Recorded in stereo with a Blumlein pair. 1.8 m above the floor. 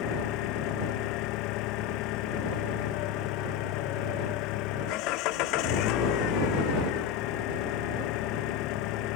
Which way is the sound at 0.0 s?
40° left.